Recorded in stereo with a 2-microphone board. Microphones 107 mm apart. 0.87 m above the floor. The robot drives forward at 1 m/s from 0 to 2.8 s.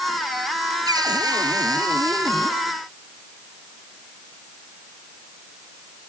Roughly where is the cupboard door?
Right.